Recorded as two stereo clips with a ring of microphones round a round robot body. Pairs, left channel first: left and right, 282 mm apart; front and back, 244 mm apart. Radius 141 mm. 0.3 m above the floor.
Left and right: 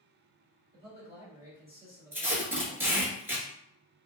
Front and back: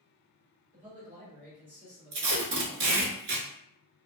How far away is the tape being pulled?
About 0.8 m.